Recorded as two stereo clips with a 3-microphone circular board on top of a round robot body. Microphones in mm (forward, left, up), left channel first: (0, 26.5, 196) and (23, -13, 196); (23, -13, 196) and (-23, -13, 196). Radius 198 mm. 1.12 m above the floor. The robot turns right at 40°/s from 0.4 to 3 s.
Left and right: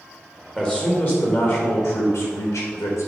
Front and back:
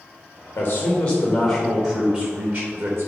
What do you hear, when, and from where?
0.6 s a man speaking: 45° left, 1.6 m; by 3.1 s 140° left, 1.6 m